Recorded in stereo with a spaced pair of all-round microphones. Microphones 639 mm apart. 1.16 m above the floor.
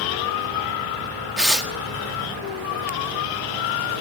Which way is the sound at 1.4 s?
Centre (ahead or behind).